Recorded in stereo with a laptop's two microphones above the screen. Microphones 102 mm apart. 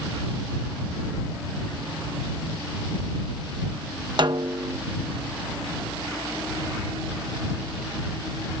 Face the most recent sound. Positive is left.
turn(degrees=-50)  # may be behind; listen again after turning